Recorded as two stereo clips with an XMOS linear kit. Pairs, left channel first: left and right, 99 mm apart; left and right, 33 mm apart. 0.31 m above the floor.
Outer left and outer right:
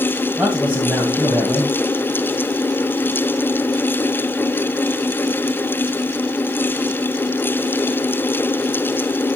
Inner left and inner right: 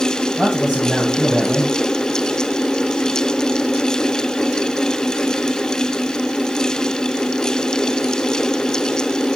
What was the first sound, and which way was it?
A man speaking, 20° right (ahead or behind).